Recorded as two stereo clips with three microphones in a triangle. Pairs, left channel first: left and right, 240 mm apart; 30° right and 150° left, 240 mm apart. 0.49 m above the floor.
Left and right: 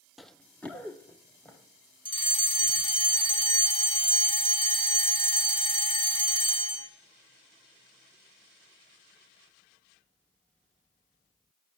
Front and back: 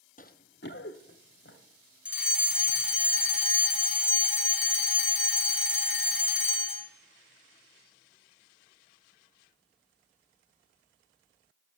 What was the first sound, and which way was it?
Running footsteps, straight ahead.